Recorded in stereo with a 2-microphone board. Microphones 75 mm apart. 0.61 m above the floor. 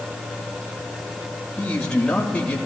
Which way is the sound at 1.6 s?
15° left (ahead or behind).